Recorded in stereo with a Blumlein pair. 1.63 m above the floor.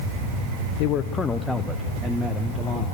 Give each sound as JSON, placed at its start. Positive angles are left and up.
{"t": 0.8, "sound": "a man speaking", "azimuth_deg": 45, "distance_m": 0.6}